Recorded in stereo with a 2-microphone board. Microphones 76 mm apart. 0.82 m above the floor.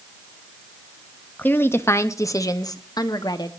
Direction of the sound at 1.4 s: 25° left (ahead or behind).